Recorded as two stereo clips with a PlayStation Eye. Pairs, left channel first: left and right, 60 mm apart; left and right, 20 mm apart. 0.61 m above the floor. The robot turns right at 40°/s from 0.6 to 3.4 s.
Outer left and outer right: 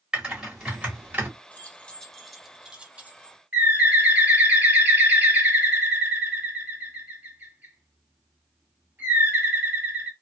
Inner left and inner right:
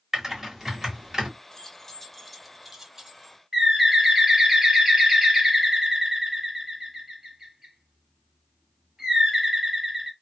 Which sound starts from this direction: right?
A bird, at 3.5 s.